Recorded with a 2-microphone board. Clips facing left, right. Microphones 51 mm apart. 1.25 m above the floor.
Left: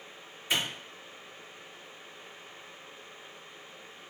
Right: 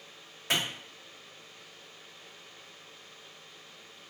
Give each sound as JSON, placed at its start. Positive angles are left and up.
{"t": 0.5, "sound": "a clap", "side_deg": -70, "distance_m": 1.9}